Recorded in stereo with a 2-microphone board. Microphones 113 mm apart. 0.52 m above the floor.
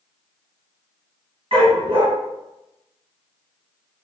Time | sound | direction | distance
1.5 | a dog barking | 60° right (ahead or behind) | 1.4 m